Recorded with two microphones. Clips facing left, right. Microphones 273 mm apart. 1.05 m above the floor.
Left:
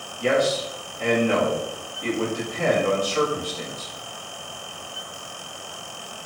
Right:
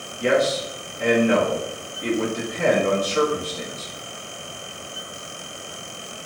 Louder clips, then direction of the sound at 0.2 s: Right 1 dB; 20° right (ahead or behind).